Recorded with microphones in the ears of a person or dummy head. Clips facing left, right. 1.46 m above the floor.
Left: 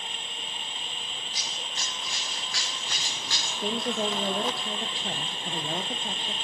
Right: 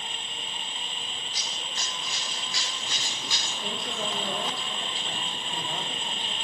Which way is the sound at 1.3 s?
40° right (ahead or behind).